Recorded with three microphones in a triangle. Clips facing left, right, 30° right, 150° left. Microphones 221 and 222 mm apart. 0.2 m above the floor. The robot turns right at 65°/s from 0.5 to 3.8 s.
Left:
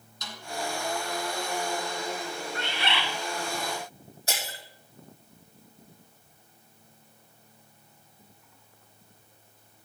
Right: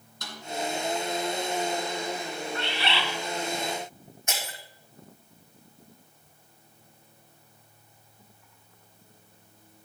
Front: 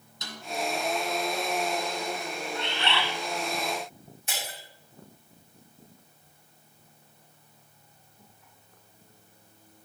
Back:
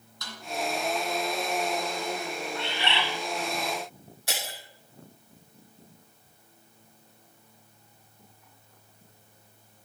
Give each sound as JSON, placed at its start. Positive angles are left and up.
{"t": 0.2, "sound": "a snare drum", "azimuth_deg": -95, "distance_m": 2.5}
{"t": 2.5, "sound": "a bird", "azimuth_deg": 60, "distance_m": 1.7}
{"t": 4.3, "sound": "breaking glass", "azimuth_deg": 145, "distance_m": 2.5}